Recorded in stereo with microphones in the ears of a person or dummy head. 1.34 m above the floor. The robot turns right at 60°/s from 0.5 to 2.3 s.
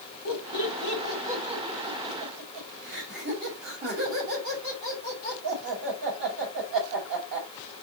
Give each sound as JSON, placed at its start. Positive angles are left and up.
{"t": 0.2, "sound": "laughter", "side_deg": 50, "distance_m": 7.0}